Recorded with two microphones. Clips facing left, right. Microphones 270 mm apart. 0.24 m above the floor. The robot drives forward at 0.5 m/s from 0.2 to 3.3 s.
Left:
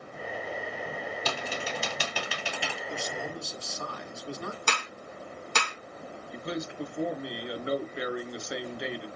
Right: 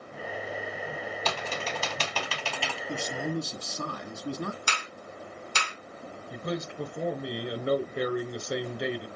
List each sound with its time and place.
1.2 s typing on a keyboard: 10° left (ahead or behind), 3 m; by 2.8 s 15° left (ahead or behind), 2.5 m
2.9 s a man speaking: 45° right (ahead or behind), 1.8 m; by 4.6 s 50° right (ahead or behind), 1.7 m
4.7 s a clap: 60° left (ahead or behind), 1.7 m
6.3 s a man speaking: 50° right (ahead or behind), 3.5 m